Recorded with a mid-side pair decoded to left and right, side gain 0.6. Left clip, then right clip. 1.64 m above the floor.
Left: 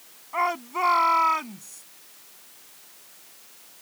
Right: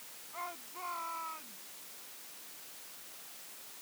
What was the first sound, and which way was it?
A shout, 65° left.